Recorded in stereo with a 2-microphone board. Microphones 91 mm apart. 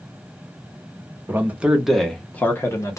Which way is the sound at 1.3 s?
25° right (ahead or behind).